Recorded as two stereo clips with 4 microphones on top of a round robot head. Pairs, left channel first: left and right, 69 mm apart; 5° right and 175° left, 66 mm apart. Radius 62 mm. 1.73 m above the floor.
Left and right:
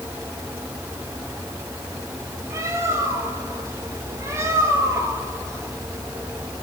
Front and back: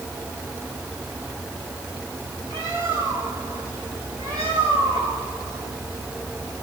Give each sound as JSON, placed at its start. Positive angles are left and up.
{"t": 2.5, "sound": "a bird", "azimuth_deg": -135, "distance_m": 7.0}